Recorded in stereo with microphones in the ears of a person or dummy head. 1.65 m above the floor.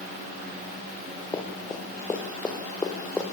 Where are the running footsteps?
25° left (ahead or behind), 6.5 m; by 3.2 s 10° left (ahead or behind), 5 m.